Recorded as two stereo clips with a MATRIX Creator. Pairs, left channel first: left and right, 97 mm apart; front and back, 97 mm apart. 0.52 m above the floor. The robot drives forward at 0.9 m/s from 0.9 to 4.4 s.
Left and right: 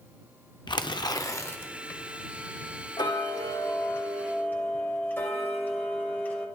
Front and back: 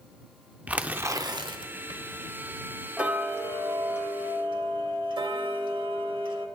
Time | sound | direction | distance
0.7 | tearing paper | 110° left | 0.5 m
3.0 | ticking | 105° left | 0.9 m